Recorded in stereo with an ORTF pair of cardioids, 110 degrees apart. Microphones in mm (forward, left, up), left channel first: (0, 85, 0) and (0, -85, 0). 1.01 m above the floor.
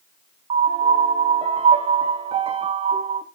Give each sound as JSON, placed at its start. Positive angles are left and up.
{"t": 0.5, "sound": "a piano", "azimuth_deg": -35, "distance_m": 1.1}